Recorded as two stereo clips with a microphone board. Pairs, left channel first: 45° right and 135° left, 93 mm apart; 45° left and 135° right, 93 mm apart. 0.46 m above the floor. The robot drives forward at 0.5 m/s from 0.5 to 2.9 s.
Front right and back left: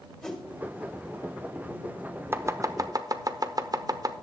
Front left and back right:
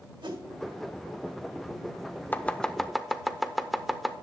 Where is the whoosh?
125° right, 2 m.